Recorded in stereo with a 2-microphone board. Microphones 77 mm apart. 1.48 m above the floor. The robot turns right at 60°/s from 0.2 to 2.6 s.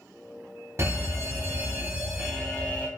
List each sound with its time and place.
0.8 s a fire alarm: 85° right, 0.8 m; by 2.9 s 25° left, 0.8 m